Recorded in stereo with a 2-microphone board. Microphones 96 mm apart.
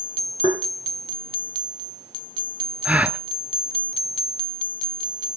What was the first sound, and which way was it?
Tapping, 60° left (ahead or behind).